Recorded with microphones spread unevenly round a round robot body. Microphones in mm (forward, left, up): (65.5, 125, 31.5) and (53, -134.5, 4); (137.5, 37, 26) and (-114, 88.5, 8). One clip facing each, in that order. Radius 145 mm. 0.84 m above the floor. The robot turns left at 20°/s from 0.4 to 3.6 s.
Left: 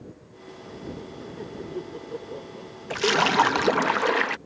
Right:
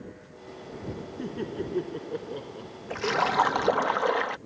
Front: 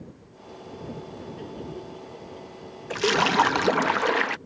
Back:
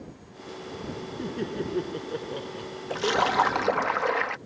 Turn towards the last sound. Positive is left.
turn(degrees=35)